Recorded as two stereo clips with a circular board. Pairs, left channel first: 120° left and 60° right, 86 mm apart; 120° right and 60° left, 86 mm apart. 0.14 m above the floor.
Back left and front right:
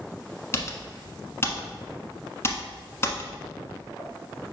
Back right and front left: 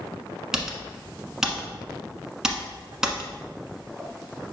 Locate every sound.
0.5 s typing on a keyboard: 135° left, 1.1 m